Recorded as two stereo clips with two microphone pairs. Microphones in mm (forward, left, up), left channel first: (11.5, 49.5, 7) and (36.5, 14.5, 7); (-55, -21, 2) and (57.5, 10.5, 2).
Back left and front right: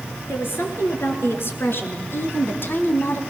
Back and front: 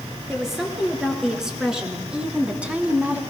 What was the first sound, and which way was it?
A woman speaking, 105° left.